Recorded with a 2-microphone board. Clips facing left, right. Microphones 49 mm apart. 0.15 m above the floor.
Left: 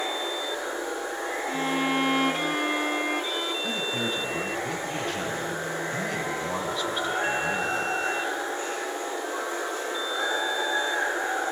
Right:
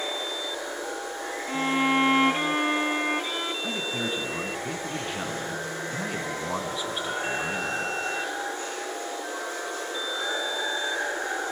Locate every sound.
0.0 s running water: 25° left (ahead or behind), 3 m
1.5 s a violin: 20° right (ahead or behind), 0.5 m
3.6 s a man speaking: 10° right (ahead or behind), 1.1 m